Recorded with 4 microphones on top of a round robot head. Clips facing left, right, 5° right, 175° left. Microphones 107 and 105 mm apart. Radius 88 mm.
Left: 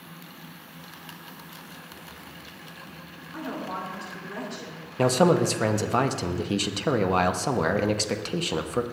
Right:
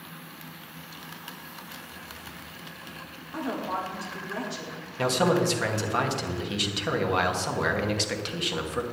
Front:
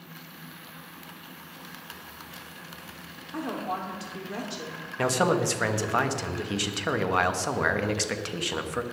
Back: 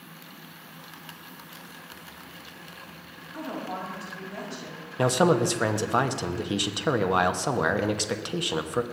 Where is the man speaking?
110° left, 1.1 m.